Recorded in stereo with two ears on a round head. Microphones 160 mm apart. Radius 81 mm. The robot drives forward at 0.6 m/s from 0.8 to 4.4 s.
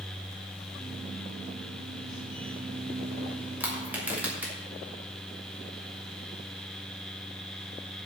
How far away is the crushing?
About 2.5 m.